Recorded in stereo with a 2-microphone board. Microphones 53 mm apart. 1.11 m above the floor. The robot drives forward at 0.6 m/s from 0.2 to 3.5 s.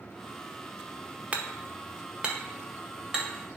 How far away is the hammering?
About 0.8 m.